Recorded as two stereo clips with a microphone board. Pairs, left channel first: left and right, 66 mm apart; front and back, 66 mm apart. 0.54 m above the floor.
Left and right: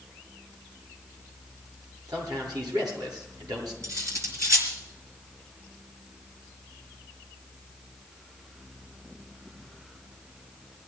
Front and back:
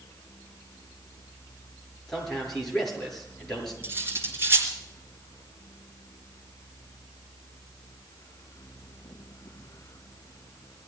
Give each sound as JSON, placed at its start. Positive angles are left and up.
{"t": 2.1, "sound": "a man speaking", "azimuth_deg": -85, "distance_m": 7.5}
{"t": 3.8, "sound": "cutlery clinking", "azimuth_deg": -125, "distance_m": 4.0}